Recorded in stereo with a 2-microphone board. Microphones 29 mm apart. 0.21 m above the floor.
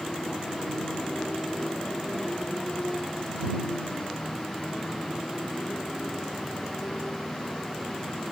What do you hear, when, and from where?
0.0 s a motorcycle: 40° left (ahead or behind)